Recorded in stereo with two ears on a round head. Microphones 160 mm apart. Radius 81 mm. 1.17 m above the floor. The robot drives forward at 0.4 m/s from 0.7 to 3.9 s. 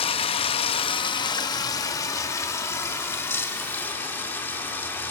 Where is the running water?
30° left (ahead or behind), 0.7 m; by 5.1 s 10° left (ahead or behind), 1.9 m.